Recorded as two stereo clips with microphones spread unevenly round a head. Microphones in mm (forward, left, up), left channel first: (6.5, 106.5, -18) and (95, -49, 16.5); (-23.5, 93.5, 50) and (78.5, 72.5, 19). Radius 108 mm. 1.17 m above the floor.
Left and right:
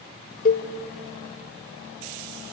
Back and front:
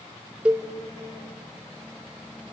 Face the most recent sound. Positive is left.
turn(degrees=80)